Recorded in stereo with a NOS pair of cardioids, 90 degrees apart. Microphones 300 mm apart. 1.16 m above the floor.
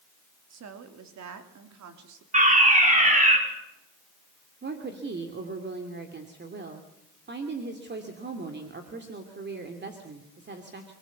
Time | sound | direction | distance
0.5 | a woman speaking | 60° right | 3 m
2.3 | a fire alarm | 25° right | 6 m
4.6 | a woman speaking | 35° right | 2.5 m